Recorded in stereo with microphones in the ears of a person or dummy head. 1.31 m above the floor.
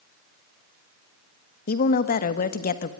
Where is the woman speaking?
55° left (ahead or behind), 1.5 m.